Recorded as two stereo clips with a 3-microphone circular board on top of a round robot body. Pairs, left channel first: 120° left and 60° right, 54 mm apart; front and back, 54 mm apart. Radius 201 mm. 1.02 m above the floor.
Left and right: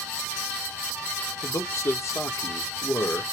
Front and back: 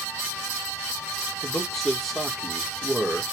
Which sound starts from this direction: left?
A man speaking, at 1.4 s.